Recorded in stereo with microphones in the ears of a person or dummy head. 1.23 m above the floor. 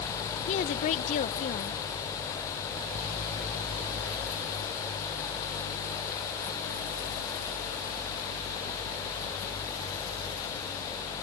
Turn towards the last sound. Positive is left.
turn(degrees=35)  # may be behind; listen again after turning